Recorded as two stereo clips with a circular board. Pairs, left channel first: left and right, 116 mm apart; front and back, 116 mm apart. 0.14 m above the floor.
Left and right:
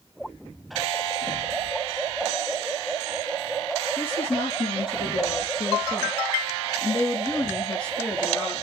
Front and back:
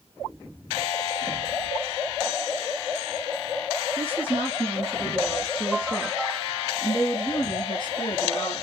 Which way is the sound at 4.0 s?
110° left.